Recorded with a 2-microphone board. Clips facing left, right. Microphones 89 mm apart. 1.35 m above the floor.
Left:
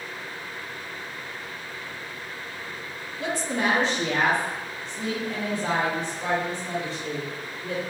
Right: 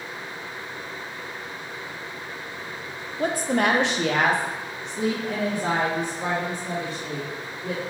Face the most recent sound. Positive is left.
turn(degrees=-45)  # may be behind; listen again after turning